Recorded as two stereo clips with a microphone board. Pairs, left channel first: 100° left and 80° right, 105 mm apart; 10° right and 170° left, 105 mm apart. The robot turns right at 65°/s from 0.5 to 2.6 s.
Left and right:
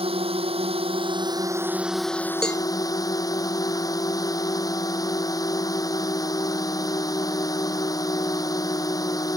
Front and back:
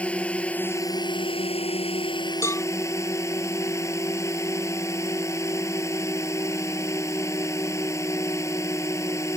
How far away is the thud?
I don't hear a thud.